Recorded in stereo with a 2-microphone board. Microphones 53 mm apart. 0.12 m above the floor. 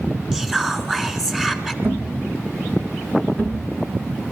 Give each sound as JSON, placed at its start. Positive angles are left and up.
{"t": 0.3, "sound": "whispering", "side_deg": -10, "distance_m": 1.2}
{"t": 1.8, "sound": "a thud", "side_deg": -40, "distance_m": 4.0}